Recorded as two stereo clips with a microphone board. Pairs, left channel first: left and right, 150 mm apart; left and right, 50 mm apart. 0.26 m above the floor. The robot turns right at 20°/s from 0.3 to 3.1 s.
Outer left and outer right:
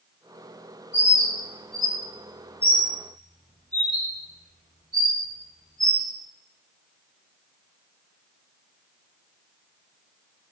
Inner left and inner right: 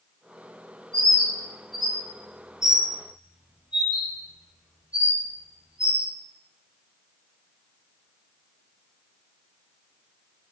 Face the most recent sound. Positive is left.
turn(degrees=-25)  # may be behind; listen again after turning